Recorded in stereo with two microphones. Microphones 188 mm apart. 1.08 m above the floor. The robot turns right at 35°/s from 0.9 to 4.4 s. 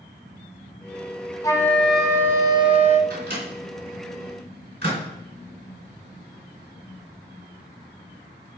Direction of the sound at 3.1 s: 70° right (ahead or behind).